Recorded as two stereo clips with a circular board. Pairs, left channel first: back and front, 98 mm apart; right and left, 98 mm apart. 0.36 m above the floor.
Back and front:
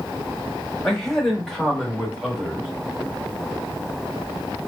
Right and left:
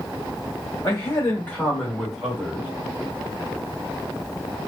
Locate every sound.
0.8 s a man speaking: 100° right, 1.1 m; by 2.7 s 75° left, 1.0 m